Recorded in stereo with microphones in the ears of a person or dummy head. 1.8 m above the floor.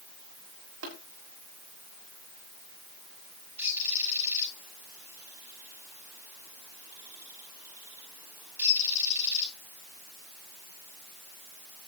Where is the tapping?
75° right (ahead or behind), 6 m.